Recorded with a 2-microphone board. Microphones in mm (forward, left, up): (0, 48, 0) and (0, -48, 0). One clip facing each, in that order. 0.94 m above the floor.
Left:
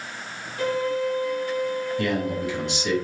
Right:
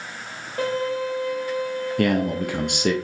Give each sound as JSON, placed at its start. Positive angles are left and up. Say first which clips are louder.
{"t": 0.6, "sound": "a violin", "louder": "even", "side_deg": -75, "distance_m": 1.6}
{"t": 2.0, "sound": "a man speaking", "louder": "right 7 dB", "side_deg": -60, "distance_m": 0.6}